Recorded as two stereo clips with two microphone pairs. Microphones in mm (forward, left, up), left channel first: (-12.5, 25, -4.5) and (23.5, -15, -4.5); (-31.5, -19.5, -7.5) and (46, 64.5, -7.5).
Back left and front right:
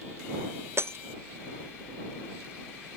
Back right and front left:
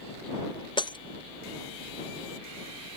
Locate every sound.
0.8 s breaking glass: 85° right